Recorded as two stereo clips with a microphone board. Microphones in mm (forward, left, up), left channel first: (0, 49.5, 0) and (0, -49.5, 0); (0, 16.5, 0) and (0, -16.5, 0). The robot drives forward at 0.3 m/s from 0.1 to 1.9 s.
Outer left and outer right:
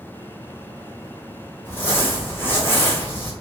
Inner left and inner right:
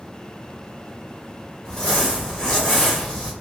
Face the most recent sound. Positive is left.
turn(degrees=20)  # may be behind; listen again after turning